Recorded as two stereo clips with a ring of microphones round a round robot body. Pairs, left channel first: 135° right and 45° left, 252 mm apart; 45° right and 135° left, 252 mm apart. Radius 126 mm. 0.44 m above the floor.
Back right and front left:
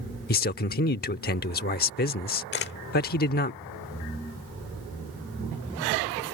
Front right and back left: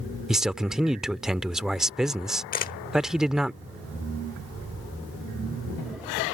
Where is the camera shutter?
95° right.